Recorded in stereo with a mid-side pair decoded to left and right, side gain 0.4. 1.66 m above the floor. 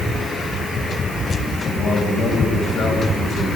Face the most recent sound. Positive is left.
turn(degrees=65)